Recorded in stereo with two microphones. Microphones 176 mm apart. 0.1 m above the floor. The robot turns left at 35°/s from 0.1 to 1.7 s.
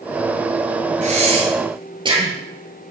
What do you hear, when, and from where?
1.0 s breathing: 45° right (ahead or behind), 1.7 m; by 2.4 s 30° right (ahead or behind), 1.7 m